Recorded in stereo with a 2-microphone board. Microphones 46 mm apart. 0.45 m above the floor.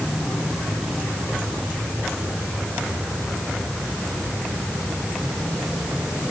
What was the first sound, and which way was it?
Only background noise.